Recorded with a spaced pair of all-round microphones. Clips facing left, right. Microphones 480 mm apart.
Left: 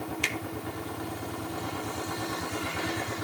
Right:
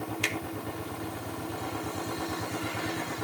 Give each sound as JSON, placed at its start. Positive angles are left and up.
{"t": 0.2, "sound": "a finger snap", "side_deg": 0, "distance_m": 0.8}